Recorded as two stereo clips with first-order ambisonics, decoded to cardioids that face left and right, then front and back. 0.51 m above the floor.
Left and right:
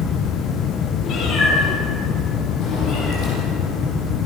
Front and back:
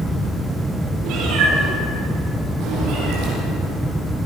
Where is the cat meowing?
140° left, 6.5 m; by 3.3 s 145° left, 8.5 m.